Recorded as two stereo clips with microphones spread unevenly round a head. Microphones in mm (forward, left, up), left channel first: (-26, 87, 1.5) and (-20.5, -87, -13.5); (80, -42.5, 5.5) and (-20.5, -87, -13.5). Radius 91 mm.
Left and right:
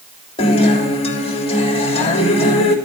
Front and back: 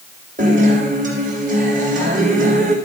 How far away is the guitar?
About 2 m.